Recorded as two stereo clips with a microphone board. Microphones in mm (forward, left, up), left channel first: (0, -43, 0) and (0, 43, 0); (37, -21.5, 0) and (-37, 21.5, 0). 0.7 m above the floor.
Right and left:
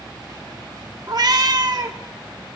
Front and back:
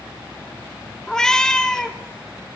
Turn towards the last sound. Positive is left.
turn(degrees=50)